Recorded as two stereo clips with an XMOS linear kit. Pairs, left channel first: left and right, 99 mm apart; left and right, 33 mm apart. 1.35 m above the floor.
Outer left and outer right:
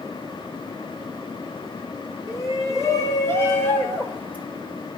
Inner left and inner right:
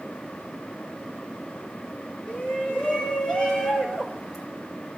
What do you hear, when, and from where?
2.3 s a shout: 35° left (ahead or behind), 5 m; by 4.5 s 15° left (ahead or behind), 6 m